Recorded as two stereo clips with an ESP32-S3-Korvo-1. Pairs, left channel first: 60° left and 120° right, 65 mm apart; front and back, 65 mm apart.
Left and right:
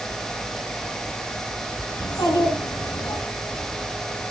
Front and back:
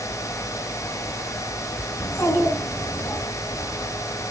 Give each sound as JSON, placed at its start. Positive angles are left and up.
{"t": 2.0, "sound": "a child speaking", "azimuth_deg": 45, "distance_m": 4.5}